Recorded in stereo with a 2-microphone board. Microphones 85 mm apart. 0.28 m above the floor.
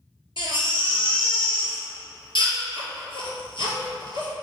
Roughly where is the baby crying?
Left.